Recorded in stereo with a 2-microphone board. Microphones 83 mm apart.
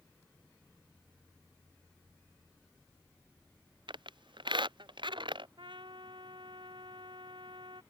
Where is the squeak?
75° right (ahead or behind).